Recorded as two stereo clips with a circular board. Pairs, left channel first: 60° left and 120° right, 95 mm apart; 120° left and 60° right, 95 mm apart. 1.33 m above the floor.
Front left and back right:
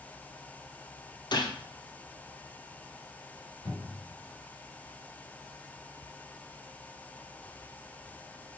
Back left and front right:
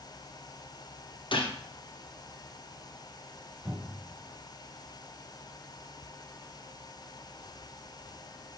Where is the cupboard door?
25° left, 4 m.